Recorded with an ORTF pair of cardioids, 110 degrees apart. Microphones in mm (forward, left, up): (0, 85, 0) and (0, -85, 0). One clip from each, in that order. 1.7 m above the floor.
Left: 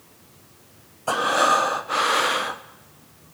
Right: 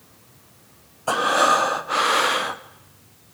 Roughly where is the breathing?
Ahead.